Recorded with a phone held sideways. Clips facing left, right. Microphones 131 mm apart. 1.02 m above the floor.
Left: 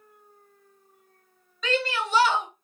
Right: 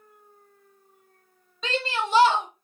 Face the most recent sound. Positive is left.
turn(degrees=-25)  # may be behind; listen again after turning